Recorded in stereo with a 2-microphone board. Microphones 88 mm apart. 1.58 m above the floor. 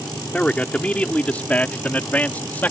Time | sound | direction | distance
0.3 | a man speaking | 10° left (ahead or behind) | ?